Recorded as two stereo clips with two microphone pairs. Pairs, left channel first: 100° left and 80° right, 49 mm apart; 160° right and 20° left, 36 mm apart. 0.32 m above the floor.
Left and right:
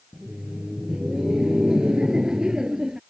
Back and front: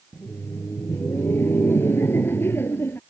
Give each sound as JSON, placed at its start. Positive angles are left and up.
{"t": 0.1, "sound": "laughter", "azimuth_deg": -160}